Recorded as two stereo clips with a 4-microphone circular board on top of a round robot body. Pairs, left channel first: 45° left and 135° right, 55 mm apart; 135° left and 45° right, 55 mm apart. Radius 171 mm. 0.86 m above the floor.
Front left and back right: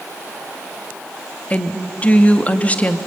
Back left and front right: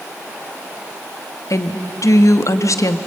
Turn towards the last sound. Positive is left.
turn(degrees=110)